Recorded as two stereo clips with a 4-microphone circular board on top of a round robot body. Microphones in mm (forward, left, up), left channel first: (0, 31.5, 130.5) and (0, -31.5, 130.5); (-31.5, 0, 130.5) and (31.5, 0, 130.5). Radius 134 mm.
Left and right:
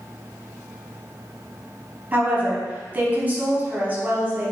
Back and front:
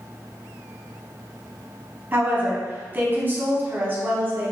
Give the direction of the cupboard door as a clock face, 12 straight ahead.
No cupboard door in this recording.